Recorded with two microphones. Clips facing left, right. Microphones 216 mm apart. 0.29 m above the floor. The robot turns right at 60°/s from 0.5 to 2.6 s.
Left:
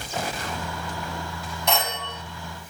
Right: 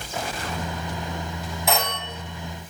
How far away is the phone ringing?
About 1.5 m.